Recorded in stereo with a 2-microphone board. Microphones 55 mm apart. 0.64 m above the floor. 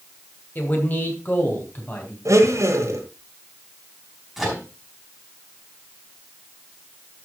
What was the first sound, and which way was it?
A man speaking, 40° left (ahead or behind).